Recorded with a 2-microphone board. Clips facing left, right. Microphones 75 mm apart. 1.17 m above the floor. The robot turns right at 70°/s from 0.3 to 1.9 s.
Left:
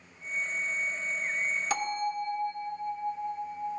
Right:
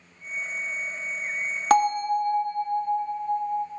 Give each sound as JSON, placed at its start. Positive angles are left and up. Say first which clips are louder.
{"t": 1.7, "sound": "a bell", "louder": "right 13 dB", "side_deg": -55, "distance_m": 0.8}